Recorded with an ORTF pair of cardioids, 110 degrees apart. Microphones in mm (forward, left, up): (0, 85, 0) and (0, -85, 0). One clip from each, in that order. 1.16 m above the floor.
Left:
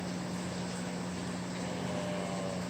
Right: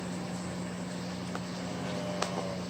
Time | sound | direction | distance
0.0 | a vehicle | 5° left | ?